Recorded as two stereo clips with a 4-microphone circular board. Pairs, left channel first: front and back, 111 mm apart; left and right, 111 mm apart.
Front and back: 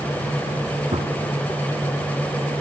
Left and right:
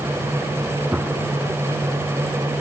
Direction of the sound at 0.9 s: 165° right.